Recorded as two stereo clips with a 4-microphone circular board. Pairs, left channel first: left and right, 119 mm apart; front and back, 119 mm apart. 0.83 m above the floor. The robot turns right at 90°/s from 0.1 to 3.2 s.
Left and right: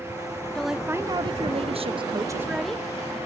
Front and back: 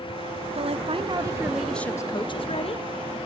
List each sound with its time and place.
0.6 s a woman speaking: 170° left, 0.8 m; by 2.9 s 20° left, 0.8 m